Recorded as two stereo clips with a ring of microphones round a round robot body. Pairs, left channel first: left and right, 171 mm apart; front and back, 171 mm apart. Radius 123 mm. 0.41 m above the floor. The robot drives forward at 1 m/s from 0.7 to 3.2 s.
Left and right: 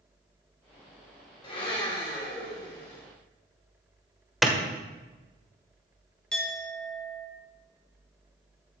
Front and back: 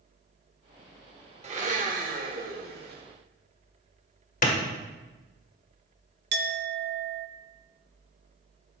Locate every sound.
1.4 s a blender: 145° left, 1.6 m; by 3.0 s 165° left, 3 m
4.4 s a clap: straight ahead, 1.6 m
6.3 s a clink: 175° left, 1.0 m